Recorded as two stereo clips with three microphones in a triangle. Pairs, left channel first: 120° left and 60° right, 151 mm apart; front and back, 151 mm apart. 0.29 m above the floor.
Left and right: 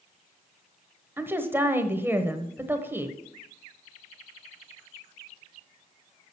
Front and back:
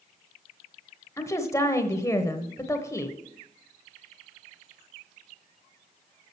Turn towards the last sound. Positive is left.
turn(degrees=-15)